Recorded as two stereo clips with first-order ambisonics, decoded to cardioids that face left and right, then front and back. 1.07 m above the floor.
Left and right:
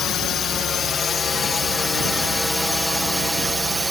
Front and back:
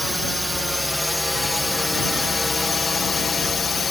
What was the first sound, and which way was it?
A drone, 90° left.